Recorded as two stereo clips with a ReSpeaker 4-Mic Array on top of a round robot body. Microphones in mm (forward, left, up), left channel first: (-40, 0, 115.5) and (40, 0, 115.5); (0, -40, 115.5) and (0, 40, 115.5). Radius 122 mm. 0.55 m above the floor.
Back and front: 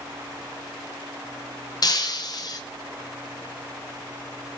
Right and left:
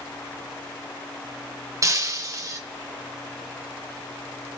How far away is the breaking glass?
About 0.9 m.